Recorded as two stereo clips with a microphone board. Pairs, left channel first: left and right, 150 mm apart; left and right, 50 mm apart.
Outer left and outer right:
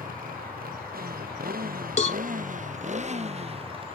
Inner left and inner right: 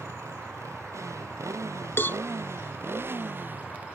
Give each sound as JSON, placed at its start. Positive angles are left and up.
{"t": 0.0, "sound": "a motorcycle", "side_deg": -75}
{"t": 2.0, "sound": "a cowbell", "side_deg": 50}